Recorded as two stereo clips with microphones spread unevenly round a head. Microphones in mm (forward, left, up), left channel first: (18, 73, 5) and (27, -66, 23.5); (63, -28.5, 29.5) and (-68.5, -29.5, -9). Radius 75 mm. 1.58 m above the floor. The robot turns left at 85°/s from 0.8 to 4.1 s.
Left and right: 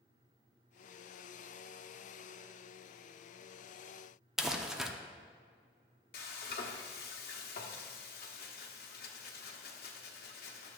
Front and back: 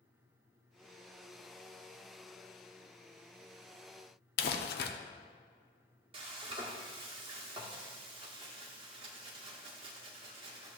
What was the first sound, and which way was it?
Crumpling, straight ahead.